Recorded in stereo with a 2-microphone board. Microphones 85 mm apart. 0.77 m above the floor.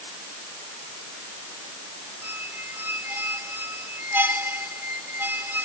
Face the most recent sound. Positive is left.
turn(degrees=-25)  # may be behind; listen again after turning